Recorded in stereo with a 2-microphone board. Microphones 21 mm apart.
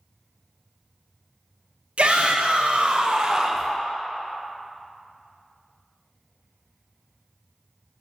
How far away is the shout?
About 1.0 m.